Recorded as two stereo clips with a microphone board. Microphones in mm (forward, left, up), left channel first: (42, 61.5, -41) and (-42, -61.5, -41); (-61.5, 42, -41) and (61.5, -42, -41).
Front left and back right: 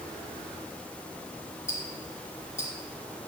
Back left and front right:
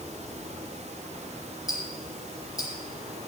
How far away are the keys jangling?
No keys jangling in this recording.